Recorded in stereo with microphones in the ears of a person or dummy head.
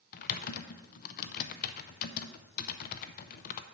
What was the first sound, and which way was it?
Typing on a keyboard, 50° left (ahead or behind).